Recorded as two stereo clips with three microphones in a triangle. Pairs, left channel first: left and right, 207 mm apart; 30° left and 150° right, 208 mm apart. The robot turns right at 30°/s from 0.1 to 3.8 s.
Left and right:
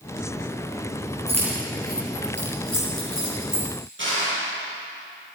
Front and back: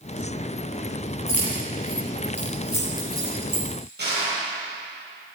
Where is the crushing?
115° right, 7 m.